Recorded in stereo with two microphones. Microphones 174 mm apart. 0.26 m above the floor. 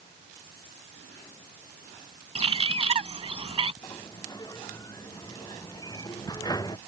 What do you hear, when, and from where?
2.4 s a bird: 35° right (ahead or behind)
3.8 s a sliding door: 20° left (ahead or behind)